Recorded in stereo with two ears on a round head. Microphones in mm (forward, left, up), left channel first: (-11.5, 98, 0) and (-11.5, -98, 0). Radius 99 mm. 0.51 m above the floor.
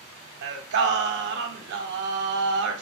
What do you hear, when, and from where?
0.4 s singing: 50° right (ahead or behind), 0.6 m